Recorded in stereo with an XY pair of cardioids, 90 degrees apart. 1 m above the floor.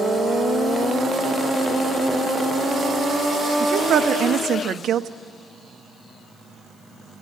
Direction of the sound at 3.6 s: 65° right.